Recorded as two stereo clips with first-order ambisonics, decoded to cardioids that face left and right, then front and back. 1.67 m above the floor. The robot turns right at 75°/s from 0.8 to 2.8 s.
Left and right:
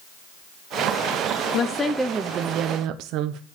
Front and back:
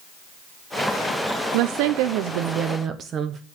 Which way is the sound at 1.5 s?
145° left.